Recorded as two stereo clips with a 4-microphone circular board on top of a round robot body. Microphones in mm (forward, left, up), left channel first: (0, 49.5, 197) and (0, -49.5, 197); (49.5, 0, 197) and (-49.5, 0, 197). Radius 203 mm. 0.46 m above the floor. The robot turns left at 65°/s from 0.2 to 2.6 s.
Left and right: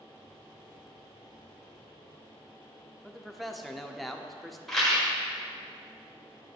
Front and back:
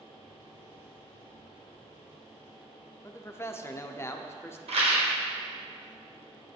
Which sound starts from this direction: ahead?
A man speaking, at 3.0 s.